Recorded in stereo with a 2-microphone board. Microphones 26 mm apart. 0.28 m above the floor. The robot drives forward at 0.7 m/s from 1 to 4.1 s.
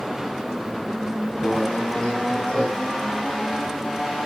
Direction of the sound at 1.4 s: 45° left (ahead or behind).